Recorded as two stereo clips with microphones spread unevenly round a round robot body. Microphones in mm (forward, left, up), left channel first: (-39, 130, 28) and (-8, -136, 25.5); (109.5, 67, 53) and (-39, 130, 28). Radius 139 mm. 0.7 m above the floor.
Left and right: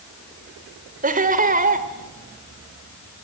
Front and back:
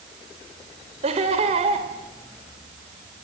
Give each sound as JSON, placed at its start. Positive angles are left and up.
{"t": 1.0, "sound": "laughter", "azimuth_deg": -145, "distance_m": 2.5}